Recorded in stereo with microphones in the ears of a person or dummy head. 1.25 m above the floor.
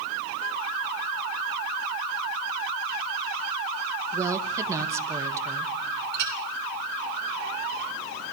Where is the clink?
60° right (ahead or behind), 5 m.